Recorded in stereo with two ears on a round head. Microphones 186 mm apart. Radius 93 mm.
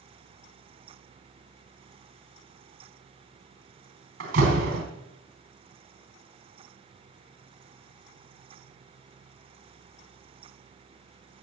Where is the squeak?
I don't hear a squeak.